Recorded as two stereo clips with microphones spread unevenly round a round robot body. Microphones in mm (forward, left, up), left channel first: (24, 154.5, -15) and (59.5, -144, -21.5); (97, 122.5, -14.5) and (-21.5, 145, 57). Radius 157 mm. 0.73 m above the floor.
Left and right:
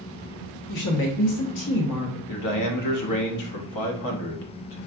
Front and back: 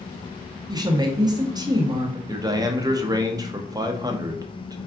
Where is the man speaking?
90° left, 0.8 m.